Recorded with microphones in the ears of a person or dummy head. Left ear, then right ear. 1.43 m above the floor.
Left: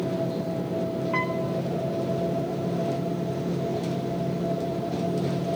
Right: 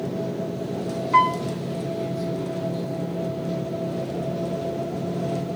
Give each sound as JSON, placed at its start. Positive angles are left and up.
{"t": 1.1, "sound": "a piano", "side_deg": -5, "distance_m": 0.6}